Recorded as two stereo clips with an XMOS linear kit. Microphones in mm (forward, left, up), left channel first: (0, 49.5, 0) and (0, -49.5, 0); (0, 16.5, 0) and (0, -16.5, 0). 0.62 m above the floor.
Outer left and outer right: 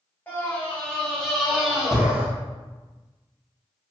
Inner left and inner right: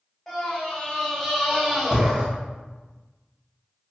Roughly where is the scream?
Centre.